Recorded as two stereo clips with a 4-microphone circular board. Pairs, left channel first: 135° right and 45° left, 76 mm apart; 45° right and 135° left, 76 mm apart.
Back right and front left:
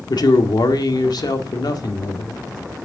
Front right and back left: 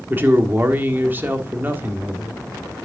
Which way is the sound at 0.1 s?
160° right.